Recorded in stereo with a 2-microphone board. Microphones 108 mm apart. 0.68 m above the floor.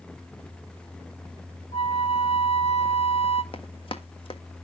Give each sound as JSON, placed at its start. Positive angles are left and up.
{"t": 1.7, "sound": "a flute", "side_deg": 75, "distance_m": 1.8}
{"t": 3.5, "sound": "running footsteps", "side_deg": 55, "distance_m": 1.4}